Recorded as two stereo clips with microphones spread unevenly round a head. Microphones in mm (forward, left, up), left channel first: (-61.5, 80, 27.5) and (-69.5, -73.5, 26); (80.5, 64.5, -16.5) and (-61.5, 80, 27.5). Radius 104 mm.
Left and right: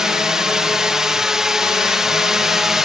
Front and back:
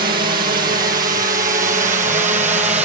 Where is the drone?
Straight behind; by 2.9 s 175° right.